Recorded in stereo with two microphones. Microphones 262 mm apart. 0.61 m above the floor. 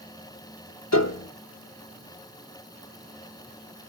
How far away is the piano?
About 0.7 m.